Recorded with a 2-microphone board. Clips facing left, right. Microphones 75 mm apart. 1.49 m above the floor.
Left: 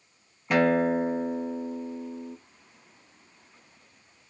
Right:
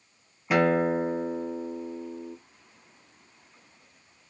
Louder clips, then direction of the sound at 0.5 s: Even; 5° right (ahead or behind).